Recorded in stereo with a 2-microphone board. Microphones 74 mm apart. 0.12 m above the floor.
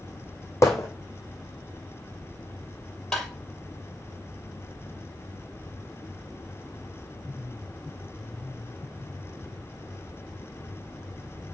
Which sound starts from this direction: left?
Hammering, at 0.6 s.